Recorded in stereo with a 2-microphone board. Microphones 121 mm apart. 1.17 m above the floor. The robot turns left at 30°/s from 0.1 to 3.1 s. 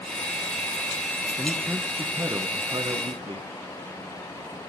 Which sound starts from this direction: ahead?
A man speaking, at 1.4 s.